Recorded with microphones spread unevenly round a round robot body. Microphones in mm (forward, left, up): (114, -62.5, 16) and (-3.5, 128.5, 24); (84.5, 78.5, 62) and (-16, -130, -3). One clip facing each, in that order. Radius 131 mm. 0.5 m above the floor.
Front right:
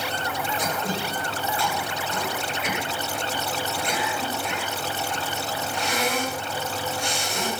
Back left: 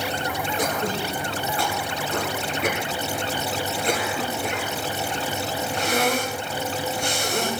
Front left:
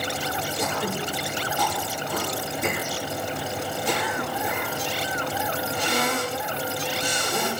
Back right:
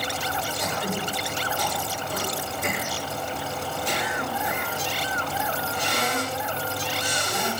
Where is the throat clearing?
90° left, 9 m.